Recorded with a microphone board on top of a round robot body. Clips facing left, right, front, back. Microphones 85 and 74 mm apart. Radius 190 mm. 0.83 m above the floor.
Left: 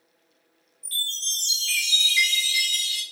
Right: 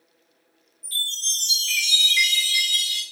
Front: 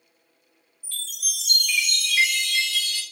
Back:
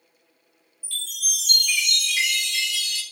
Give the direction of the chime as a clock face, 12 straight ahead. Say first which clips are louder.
Right 2 dB, back 2 dB; 6 o'clock.